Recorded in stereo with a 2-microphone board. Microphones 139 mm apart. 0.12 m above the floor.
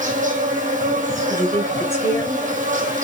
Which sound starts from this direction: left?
A woman speaking, at 1.3 s.